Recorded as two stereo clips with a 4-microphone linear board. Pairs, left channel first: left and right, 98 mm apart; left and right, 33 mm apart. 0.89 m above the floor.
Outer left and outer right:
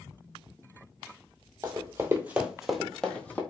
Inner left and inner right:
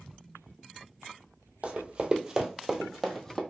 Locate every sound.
1.6 s running footsteps: 35° right (ahead or behind), 1.1 m; by 3.4 s 20° left (ahead or behind), 1.1 m